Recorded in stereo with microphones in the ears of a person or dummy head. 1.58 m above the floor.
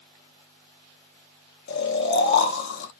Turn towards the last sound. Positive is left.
turn(degrees=55)  # may be behind; listen again after turning